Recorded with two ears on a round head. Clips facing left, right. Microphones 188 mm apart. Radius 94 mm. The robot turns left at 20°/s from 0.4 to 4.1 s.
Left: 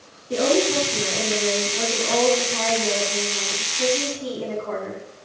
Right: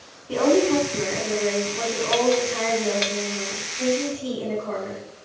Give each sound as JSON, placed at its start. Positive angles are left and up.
{"t": 0.3, "sound": "a woman speaking", "azimuth_deg": -105, "distance_m": 4.0}